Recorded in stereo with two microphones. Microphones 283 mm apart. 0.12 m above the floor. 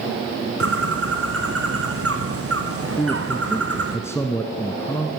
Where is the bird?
50° right (ahead or behind), 3 m.